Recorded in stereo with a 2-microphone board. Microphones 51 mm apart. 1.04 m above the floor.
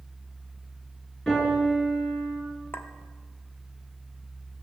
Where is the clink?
45° left (ahead or behind), 0.9 m.